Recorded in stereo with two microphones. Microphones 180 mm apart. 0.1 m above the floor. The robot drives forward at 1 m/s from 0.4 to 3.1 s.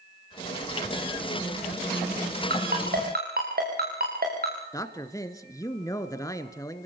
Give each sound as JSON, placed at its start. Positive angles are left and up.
{"t": 2.5, "sound": "a ringtone", "side_deg": -60, "distance_m": 7.0}
{"t": 4.7, "sound": "a man speaking", "side_deg": 20, "distance_m": 1.2}